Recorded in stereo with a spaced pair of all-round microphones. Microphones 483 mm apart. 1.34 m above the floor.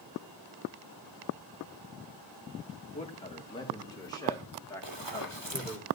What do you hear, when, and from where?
2.9 s a man speaking: 15° left (ahead or behind), 2 m; by 5.8 s 5° left (ahead or behind), 4 m
4.8 s running footsteps: 65° right (ahead or behind), 2.5 m